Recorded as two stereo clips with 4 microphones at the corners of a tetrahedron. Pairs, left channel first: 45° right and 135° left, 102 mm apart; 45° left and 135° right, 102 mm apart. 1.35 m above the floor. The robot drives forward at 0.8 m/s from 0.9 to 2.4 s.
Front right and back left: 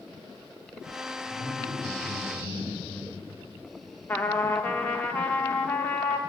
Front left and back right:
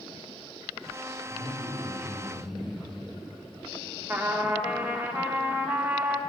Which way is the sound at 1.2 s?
115° left.